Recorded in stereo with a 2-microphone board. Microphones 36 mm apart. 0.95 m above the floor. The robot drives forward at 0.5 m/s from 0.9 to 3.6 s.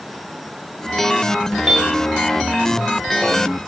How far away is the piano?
About 2 m.